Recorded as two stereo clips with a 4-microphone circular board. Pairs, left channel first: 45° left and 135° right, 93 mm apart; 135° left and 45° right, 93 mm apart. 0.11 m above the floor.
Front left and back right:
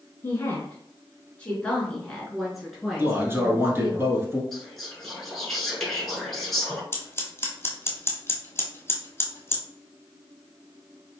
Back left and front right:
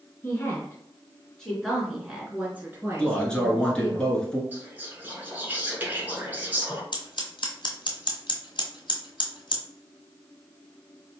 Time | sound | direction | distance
0.2 | a woman speaking | 90° left | 1.8 m
3.0 | a man speaking | 160° right | 1.2 m
4.5 | whispering | 35° right | 1.2 m
6.9 | scissors | 110° left | 1.1 m